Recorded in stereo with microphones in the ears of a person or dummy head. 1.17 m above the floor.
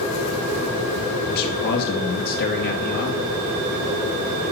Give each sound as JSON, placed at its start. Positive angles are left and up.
{"t": 1.3, "sound": "a man speaking", "side_deg": 60, "distance_m": 2.5}